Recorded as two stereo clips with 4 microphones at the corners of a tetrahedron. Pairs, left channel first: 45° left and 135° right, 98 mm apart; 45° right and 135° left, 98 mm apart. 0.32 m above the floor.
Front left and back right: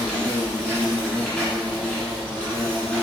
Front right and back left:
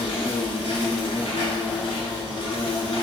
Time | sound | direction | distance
0.0 | an insect | 35° right | 0.8 m